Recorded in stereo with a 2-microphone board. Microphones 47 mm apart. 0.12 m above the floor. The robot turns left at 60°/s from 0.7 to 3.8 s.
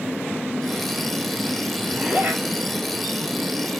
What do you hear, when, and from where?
1.9 s a zipper: 15° right, 3.5 m; by 2.4 s 45° right, 3.5 m